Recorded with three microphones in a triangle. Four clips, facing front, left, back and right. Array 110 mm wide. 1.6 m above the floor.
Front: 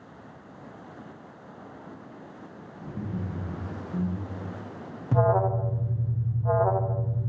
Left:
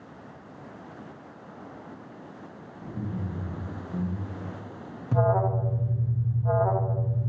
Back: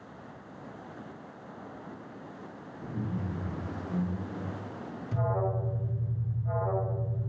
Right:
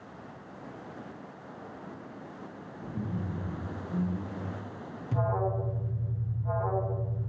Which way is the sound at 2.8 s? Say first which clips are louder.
Left 1 dB, front 1 dB; 170° right.